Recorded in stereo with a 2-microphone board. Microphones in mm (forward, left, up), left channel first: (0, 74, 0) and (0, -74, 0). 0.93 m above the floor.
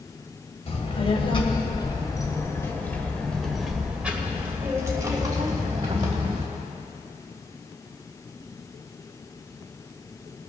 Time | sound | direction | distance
0.7 | a child speaking | 45° left (ahead or behind) | 2.5 m